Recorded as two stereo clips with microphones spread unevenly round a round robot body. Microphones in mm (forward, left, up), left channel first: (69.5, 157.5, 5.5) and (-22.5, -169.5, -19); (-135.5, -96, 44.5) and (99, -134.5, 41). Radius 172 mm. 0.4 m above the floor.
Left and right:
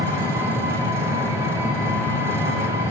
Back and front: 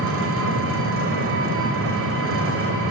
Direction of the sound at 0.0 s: 25° right.